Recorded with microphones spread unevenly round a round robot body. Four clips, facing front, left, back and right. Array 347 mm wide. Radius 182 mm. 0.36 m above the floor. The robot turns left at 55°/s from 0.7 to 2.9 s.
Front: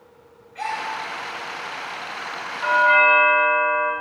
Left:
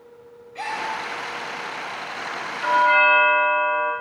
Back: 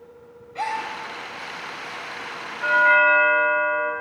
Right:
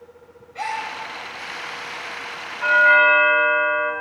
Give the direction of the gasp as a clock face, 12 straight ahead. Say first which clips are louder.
Right 2 dB, back 1 dB; 7 o'clock.